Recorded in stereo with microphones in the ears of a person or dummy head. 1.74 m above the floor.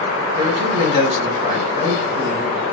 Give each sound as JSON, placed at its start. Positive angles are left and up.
{"t": 0.3, "sound": "a man speaking", "side_deg": -30, "distance_m": 2.5}